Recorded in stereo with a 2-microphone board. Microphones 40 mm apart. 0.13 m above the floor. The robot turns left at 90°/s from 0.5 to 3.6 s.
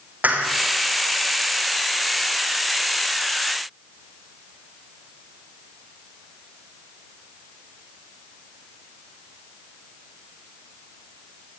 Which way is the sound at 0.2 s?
40° right (ahead or behind).